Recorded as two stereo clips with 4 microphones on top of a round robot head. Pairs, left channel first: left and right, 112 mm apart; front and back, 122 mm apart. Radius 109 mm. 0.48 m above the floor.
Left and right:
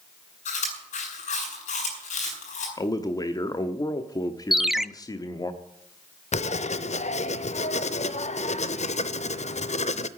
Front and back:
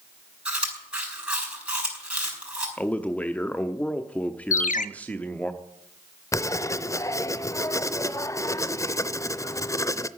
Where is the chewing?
100° left, 7 m.